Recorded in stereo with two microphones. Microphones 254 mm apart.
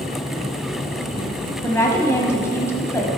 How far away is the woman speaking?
About 1.4 m.